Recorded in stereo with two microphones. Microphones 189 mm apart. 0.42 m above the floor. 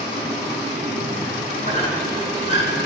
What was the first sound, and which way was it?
A squeak, 40° left (ahead or behind).